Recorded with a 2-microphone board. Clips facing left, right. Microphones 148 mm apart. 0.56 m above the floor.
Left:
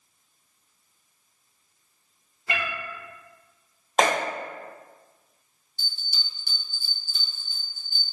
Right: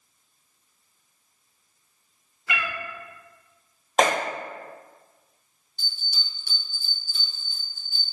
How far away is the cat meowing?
About 0.5 m.